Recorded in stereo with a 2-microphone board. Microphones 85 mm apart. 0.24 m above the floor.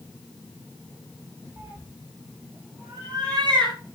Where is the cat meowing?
35° right (ahead or behind), 5.5 m; by 3.8 s 60° right (ahead or behind), 7 m.